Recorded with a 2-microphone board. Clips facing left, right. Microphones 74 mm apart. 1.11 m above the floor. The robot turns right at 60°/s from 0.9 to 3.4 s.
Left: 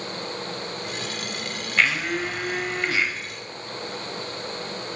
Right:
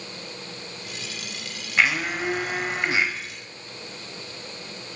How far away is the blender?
About 0.9 m.